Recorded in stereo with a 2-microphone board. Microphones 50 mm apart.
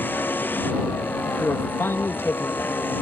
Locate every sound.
0.0 s a vehicle: 40° left (ahead or behind)
1.4 s a man speaking: 50° left (ahead or behind)